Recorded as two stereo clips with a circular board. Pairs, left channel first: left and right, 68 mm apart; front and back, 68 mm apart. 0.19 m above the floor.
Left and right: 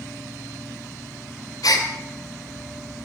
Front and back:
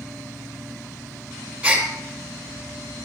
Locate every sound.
1.6 s a gasp: 115° left, 2.5 m